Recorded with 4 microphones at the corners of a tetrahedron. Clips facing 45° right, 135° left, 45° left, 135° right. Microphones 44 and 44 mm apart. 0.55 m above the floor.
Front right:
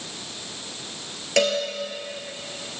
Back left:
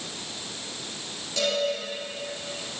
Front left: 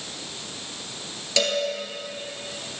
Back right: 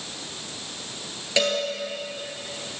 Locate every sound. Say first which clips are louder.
1.4 s a cowbell: front right 6 dB, back right 1 dB; 65° right, 3 m